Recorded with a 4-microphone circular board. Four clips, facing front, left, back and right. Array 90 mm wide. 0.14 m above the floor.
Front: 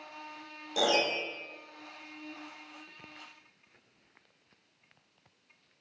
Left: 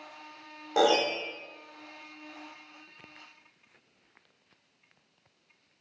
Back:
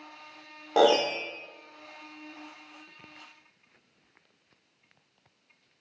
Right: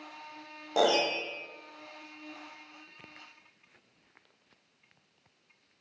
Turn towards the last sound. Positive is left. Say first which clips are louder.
# left 2 dB, back 7 dB
turn(degrees=180)